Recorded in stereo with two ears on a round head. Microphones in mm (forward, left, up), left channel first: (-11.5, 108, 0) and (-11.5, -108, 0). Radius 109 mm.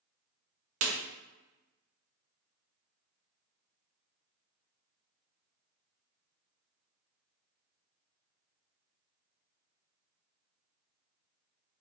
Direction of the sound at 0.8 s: 55° right (ahead or behind).